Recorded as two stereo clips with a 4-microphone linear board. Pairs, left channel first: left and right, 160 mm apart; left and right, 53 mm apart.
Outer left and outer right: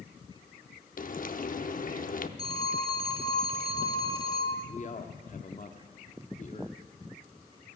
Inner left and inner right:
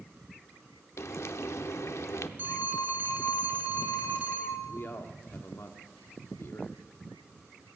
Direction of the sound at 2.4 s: 40° right (ahead or behind).